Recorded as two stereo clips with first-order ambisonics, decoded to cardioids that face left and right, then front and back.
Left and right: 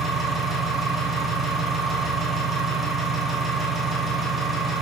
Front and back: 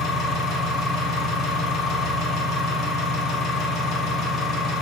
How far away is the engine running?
About 1.0 m.